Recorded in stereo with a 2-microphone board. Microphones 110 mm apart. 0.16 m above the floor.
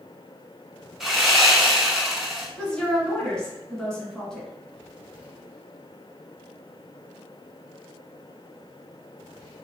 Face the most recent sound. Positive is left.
turn(degrees=5)  # may be behind; listen again after turning